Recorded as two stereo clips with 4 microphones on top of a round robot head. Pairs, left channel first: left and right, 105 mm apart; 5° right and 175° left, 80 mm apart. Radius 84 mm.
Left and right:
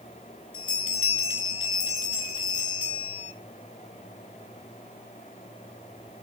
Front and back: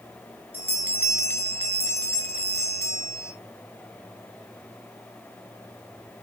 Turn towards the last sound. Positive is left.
turn(degrees=120)